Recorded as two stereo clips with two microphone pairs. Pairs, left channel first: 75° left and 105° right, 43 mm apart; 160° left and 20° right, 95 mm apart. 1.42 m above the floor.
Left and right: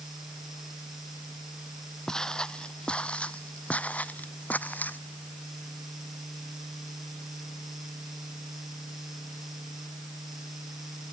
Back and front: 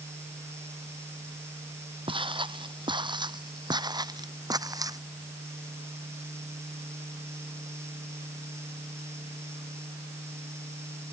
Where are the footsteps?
Straight ahead; by 5.0 s 30° left.